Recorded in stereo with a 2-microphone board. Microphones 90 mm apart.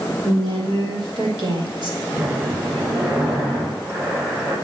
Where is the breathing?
35° right (ahead or behind), 6.5 m.